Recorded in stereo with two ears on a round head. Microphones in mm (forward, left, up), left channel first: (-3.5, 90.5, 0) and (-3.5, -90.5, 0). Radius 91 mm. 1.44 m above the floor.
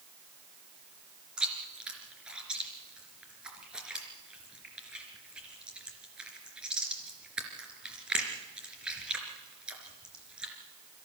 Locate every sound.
1.4 s chewing: 5° right (ahead or behind), 3.5 m